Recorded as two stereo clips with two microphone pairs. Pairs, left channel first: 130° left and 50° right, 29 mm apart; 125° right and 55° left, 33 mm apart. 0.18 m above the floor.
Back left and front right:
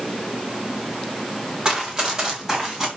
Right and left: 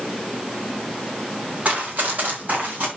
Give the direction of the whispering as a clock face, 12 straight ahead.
No whispering in this recording.